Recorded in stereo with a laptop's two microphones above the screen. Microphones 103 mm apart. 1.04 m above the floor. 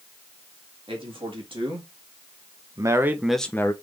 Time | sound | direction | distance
0.9 | a man speaking | 60° right (ahead or behind) | 1.9 m